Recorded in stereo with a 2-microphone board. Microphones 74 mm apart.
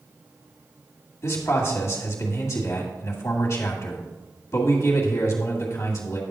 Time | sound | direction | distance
1.2 | a man speaking | 40° left (ahead or behind) | 1.9 m